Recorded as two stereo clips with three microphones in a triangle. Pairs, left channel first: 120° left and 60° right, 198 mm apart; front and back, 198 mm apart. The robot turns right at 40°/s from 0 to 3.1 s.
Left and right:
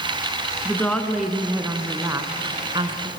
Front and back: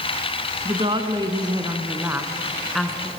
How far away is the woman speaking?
About 1.6 m.